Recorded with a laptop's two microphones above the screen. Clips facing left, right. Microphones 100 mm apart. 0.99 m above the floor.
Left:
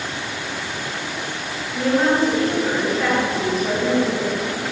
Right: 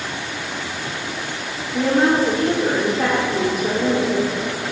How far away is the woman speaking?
About 2.5 m.